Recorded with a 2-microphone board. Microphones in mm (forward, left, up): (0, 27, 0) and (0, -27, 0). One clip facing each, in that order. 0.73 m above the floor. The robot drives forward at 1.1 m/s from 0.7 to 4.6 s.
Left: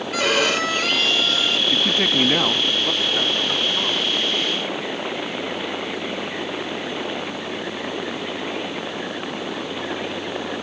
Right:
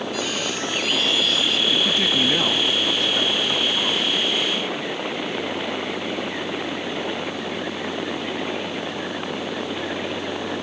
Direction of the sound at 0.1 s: 75° left (ahead or behind).